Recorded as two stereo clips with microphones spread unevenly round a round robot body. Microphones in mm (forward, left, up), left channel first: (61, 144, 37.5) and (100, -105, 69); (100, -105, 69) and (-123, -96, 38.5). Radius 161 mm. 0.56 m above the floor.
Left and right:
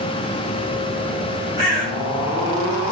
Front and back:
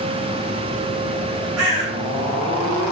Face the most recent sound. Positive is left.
turn(degrees=180)